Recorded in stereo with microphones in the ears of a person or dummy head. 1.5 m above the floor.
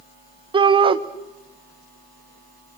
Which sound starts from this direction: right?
A shout, at 0.5 s.